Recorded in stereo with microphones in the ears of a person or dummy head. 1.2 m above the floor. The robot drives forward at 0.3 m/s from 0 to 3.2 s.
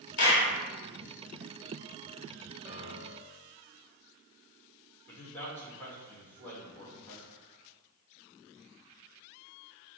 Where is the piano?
5° right (ahead or behind), 1.2 m.